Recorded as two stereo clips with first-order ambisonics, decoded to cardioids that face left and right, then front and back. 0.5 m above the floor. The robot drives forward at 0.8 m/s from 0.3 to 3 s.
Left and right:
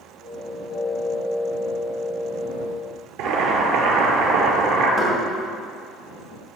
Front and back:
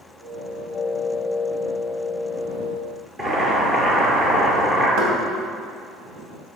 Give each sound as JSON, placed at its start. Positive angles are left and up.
{"t": 3.2, "sound": "boiling", "azimuth_deg": -110, "distance_m": 2.0}
{"t": 5.0, "sound": "knocking", "azimuth_deg": 145, "distance_m": 2.5}